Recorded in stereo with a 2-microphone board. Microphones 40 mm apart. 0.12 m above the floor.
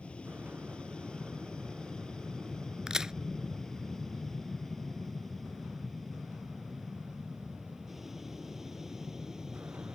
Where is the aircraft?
30° left (ahead or behind); by 10.0 s 10° right (ahead or behind).